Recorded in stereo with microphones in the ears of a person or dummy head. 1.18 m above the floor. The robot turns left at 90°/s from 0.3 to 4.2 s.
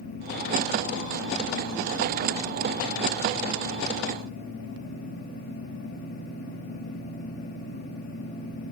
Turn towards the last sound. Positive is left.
No sound to turn to.